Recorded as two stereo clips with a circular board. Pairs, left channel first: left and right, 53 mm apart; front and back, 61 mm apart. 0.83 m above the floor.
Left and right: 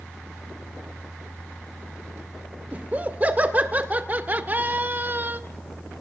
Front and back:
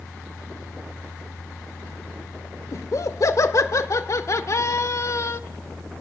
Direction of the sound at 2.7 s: 30° right.